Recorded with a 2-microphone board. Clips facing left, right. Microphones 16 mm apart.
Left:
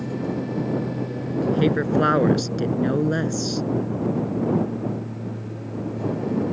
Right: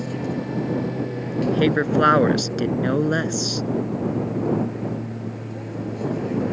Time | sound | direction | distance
0.0 | an aircraft | 35° right (ahead or behind) | ?
1.4 | a woman speaking | 20° right (ahead or behind) | ?